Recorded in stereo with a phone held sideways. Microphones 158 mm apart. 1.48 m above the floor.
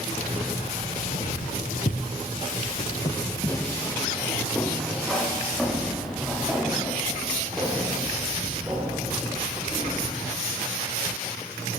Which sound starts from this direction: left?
Keys jangling, at 0.1 s.